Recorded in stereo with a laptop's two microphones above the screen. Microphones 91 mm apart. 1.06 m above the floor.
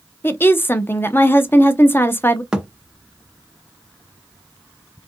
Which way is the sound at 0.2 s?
25° left (ahead or behind).